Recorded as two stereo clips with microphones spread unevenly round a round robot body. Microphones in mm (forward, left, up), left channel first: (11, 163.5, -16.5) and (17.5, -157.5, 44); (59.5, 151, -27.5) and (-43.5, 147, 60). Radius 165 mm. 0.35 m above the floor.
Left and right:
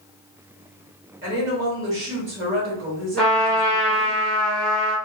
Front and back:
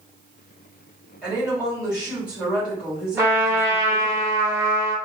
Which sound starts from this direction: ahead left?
A trumpet, at 3.2 s.